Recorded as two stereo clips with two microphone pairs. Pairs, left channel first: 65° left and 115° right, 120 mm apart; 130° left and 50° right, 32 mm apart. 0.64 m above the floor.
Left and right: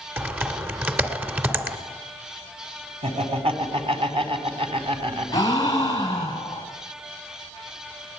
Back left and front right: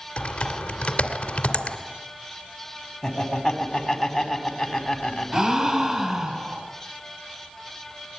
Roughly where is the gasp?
Ahead.